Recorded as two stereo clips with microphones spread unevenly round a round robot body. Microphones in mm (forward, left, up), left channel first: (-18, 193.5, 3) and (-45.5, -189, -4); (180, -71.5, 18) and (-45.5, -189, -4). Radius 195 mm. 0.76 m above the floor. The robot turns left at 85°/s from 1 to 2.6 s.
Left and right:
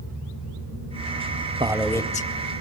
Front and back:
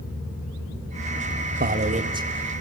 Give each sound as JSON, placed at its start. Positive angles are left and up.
{"t": 1.6, "sound": "a man speaking", "azimuth_deg": -165, "distance_m": 1.0}